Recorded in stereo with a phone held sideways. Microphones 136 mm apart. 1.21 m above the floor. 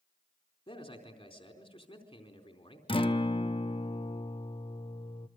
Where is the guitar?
40° left (ahead or behind), 0.9 m.